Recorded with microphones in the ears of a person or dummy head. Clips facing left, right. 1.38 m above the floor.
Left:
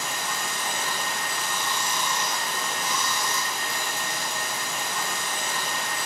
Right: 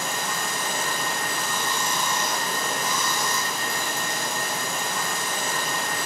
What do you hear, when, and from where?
0.0 s running water: 45° right (ahead or behind), 1.0 m